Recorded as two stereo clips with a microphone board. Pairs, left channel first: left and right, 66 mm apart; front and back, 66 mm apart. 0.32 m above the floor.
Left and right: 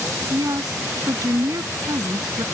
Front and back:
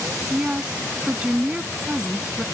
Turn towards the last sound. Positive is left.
turn(degrees=-105)